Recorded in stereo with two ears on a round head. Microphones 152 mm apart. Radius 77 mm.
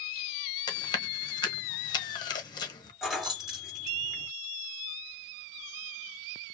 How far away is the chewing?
About 1.2 m.